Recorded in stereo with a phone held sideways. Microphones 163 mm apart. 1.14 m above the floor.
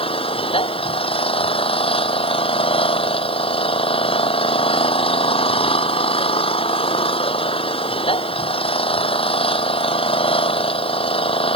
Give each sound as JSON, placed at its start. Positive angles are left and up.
{"t": 0.0, "sound": "an engine running", "side_deg": 30}